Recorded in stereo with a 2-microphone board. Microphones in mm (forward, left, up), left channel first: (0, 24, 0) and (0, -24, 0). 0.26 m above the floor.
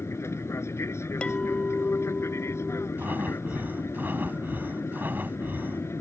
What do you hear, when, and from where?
0.0 s an aircraft: 70° left (ahead or behind)
1.2 s a clink: 25° left (ahead or behind)
3.0 s breathing: 45° right (ahead or behind)